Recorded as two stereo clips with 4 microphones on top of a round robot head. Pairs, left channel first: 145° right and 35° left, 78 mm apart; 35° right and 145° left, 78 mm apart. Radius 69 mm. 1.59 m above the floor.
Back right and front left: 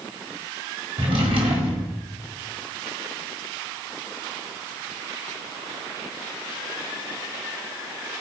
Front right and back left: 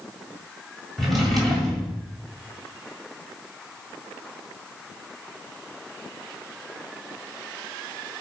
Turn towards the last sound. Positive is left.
turn(degrees=50)